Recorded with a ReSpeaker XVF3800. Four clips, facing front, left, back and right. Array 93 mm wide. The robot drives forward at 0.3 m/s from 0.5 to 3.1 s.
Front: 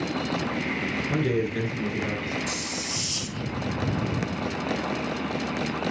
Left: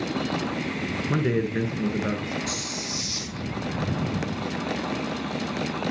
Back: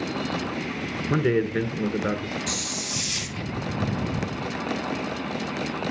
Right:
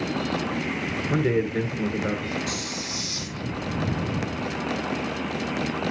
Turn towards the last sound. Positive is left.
turn(degrees=180)